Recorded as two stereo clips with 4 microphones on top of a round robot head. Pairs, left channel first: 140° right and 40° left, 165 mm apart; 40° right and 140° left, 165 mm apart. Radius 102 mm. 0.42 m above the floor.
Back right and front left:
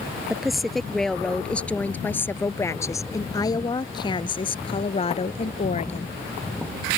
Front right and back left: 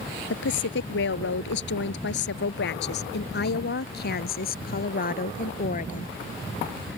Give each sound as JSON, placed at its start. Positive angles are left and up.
{"t": 0.3, "sound": "a woman speaking", "azimuth_deg": -45}